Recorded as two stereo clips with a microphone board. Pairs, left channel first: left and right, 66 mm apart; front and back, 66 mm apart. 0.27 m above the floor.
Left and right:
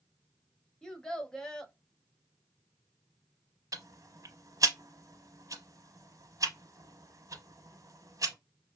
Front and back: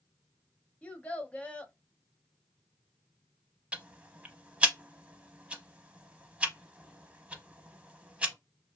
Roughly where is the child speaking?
Ahead left.